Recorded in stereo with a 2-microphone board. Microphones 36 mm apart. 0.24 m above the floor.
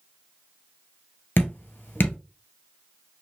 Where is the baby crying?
No baby crying in this recording.